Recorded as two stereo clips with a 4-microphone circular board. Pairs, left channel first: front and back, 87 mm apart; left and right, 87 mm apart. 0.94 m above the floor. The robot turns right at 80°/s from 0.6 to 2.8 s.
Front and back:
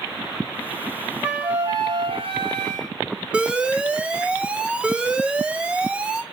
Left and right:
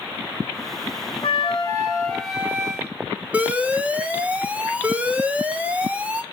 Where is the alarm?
125° right, 0.9 m.